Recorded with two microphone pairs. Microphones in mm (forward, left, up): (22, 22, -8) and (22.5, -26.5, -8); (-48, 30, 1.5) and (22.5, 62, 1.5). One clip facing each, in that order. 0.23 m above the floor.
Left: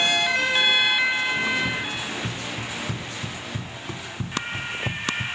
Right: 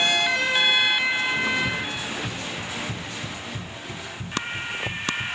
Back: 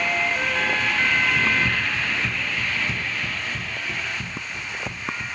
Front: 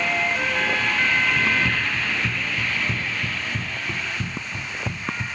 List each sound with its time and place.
1.4 s running footsteps: 50° left, 3.5 m; by 5.3 s 60° left, 1.5 m